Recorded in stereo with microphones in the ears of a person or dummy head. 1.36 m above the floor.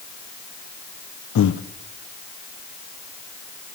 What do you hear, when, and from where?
1.4 s breathing: 65° left (ahead or behind), 0.6 m